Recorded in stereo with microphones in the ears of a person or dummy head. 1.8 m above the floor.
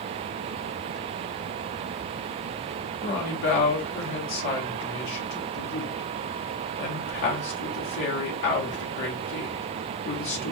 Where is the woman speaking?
55° left (ahead or behind), 0.9 m.